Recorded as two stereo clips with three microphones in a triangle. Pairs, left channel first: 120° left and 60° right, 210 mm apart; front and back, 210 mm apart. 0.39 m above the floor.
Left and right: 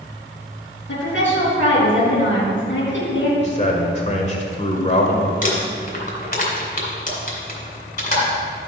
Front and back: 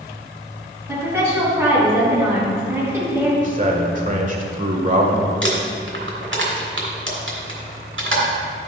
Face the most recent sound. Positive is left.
turn(degrees=165)